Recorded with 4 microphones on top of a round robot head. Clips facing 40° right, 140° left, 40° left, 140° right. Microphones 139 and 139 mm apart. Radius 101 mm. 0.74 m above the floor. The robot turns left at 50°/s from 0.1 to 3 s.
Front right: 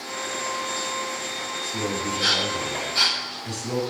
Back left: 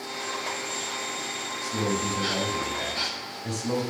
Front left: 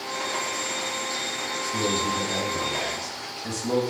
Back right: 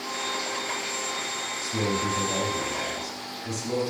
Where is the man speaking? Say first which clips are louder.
Back left 1 dB, front left 1 dB; 170° left, 6 m; by 3.8 s 100° left, 6 m.